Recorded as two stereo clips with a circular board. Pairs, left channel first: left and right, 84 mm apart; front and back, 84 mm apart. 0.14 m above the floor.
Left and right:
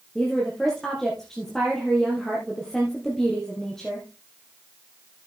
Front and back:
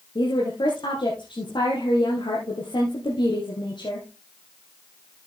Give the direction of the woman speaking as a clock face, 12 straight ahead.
12 o'clock.